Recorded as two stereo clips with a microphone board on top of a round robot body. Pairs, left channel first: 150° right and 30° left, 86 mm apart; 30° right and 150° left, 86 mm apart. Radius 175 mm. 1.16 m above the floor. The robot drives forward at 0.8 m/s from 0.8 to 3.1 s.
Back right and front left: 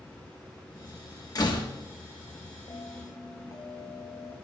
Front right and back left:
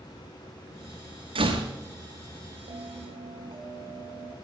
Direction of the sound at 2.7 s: 155° left.